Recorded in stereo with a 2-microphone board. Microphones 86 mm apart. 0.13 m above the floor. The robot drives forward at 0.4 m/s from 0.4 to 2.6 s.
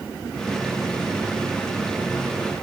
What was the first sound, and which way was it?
Only background noise.